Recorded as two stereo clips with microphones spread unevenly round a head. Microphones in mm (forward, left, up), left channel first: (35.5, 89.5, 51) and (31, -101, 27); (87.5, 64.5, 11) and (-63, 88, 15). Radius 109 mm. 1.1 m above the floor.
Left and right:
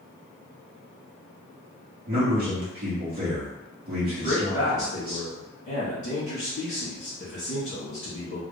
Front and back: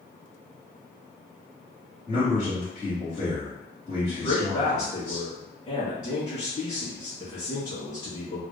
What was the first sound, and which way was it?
A man speaking, 60° right.